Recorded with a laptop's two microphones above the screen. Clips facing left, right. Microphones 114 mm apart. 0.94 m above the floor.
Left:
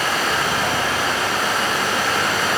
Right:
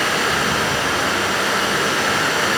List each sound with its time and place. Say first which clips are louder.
0.0 s running water: right 1 dB; 70° right (ahead or behind), 2.5 m